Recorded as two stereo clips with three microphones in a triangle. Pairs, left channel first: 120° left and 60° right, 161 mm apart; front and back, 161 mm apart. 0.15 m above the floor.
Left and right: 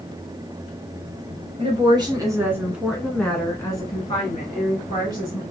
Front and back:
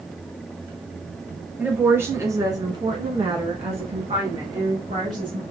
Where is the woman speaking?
105° right, 1.6 m; by 5.4 s 145° left, 2 m.